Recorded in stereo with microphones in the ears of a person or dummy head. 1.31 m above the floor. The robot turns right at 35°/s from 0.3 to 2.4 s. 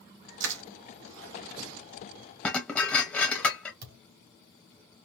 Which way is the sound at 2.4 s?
10° left (ahead or behind).